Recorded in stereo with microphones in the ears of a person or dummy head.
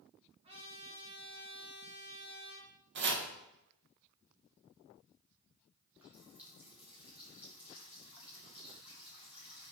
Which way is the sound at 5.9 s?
10° right (ahead or behind).